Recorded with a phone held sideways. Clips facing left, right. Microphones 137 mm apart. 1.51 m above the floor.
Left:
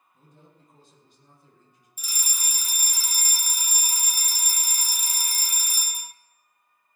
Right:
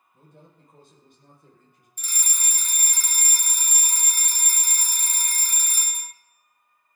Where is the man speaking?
65° right (ahead or behind), 6.5 m.